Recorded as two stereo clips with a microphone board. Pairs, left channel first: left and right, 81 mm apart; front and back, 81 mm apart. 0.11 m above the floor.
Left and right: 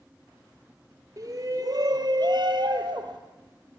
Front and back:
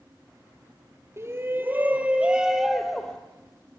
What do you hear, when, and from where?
1.2 s a shout: 130° right, 2.5 m; by 3.2 s 80° right, 2.5 m